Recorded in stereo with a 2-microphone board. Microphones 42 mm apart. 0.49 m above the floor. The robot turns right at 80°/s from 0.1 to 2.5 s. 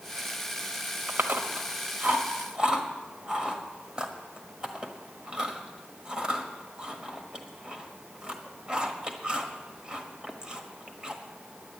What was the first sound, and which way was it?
Chewing, 40° right (ahead or behind).